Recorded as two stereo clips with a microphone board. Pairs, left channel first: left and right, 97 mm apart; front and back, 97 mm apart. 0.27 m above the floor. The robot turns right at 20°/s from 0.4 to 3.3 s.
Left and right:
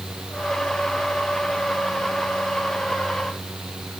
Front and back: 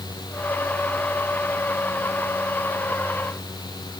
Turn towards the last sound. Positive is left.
No sound to turn to.